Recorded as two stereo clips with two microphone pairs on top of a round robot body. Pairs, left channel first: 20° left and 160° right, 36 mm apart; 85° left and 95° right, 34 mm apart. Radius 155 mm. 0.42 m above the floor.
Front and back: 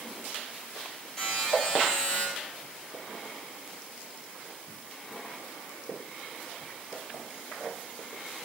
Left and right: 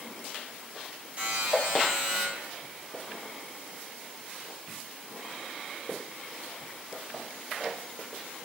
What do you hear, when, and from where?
1.2 s a buzzer: 50° right, 1.8 m